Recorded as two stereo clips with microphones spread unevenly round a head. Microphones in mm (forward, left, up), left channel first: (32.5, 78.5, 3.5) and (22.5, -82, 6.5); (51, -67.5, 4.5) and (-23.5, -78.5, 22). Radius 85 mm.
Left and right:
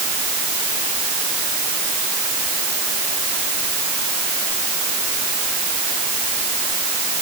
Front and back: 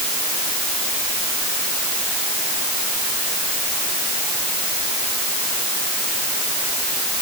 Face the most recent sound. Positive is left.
No sound to turn to.